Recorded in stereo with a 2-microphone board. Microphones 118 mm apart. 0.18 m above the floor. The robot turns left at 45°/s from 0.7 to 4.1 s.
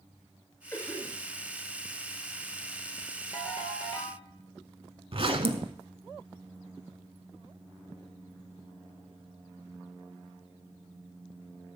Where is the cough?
20° left (ahead or behind), 2.5 m; by 1.2 s centre (ahead or behind), 2.5 m.